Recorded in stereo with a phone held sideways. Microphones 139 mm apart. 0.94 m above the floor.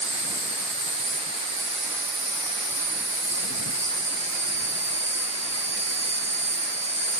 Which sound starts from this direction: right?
An insect, at 0.0 s.